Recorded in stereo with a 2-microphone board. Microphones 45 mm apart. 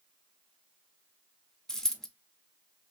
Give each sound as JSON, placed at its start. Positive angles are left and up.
{"t": 1.7, "sound": "a dropped coin", "side_deg": 15, "distance_m": 0.6}